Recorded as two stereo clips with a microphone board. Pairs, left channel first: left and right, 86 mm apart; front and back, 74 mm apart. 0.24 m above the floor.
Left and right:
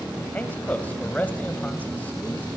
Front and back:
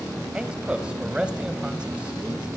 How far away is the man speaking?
About 1.1 m.